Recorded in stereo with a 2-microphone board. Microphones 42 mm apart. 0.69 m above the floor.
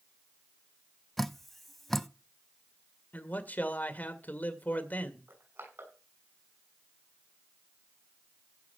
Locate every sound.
1.2 s dripping: 5° left (ahead or behind), 0.6 m
3.1 s a man speaking: 40° left (ahead or behind), 1.9 m
5.3 s crushing: 80° right, 6 m